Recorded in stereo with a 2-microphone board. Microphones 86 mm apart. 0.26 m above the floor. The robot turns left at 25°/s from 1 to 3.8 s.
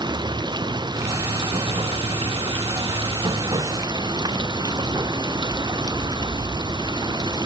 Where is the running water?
55° right; by 7.5 s 125° right.